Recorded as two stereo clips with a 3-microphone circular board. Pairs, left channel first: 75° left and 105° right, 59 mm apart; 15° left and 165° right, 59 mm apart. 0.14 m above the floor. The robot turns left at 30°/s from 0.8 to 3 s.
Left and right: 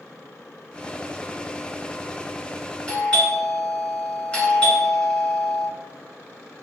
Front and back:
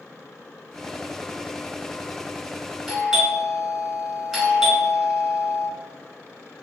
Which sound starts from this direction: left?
A doorbell, at 2.9 s.